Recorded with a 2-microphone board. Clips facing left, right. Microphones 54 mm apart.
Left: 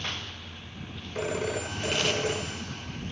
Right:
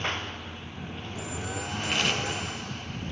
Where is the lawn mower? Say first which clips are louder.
Right 5 dB; 30° right (ahead or behind).